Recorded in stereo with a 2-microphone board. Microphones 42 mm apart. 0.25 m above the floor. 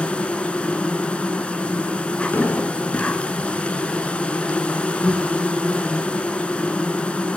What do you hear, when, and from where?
0.0 s an insect: 30° left (ahead or behind), 0.8 m
2.3 s an explosion: 65° left (ahead or behind), 1.4 m